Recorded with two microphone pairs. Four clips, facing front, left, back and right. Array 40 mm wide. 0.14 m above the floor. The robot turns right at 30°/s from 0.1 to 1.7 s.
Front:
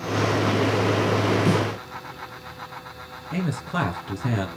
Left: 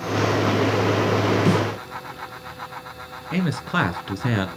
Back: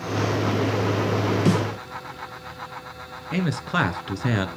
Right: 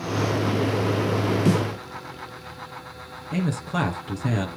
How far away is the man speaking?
About 2 m.